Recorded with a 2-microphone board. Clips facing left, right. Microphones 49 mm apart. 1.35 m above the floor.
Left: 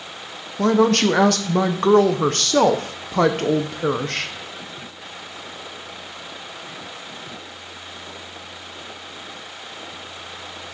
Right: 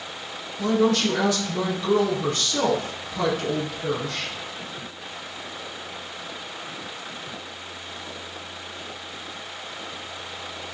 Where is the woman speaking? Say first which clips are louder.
Left 4 dB; 65° left (ahead or behind), 0.5 m.